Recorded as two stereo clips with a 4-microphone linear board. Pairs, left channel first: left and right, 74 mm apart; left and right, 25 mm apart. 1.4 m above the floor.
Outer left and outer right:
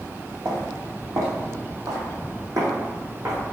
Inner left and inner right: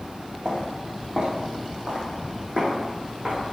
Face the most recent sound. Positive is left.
turn(degrees=-55)  # may be behind; listen again after turning